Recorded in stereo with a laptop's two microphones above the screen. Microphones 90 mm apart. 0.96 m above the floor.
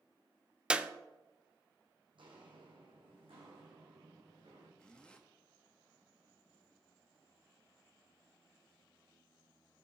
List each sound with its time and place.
0.7 s a clap: 10° right (ahead or behind), 0.5 m
2.1 s footsteps: 65° right (ahead or behind), 2.5 m; by 4.7 s 75° right (ahead or behind), 5 m
4.8 s a zipper: 10° left (ahead or behind), 0.6 m